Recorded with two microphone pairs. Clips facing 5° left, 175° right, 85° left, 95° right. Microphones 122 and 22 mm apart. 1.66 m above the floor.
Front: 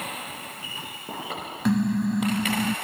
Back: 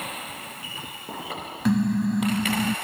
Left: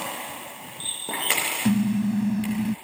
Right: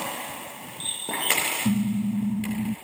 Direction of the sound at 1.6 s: 95° left.